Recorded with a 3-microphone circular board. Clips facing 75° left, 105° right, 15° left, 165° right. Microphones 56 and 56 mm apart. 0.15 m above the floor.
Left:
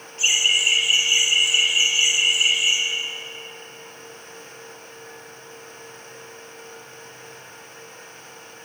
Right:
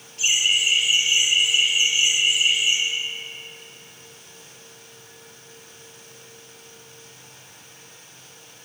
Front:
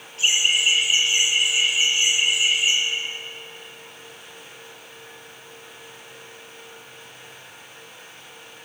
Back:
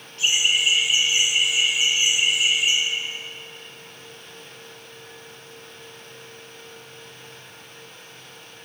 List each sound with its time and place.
0.2 s laughter: 80° left, 1.8 m; by 2.8 s 110° left, 3.5 m